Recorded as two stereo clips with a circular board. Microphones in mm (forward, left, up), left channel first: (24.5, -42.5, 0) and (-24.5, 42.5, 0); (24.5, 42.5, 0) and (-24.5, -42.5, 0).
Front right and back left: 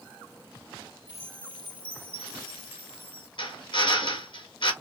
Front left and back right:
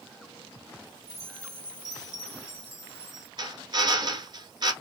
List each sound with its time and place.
1.1 s a chime: 10° left, 1.9 m
3.4 s a drill: 85° right, 1.3 m